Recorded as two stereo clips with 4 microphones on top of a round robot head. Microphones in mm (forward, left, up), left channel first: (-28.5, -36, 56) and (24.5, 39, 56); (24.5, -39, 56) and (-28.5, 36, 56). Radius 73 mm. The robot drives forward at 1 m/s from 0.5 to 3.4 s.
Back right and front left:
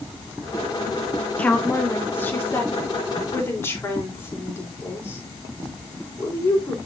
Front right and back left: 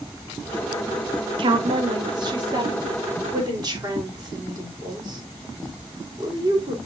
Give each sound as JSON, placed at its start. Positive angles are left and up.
{"t": 1.4, "sound": "a woman speaking", "azimuth_deg": 160, "distance_m": 1.5}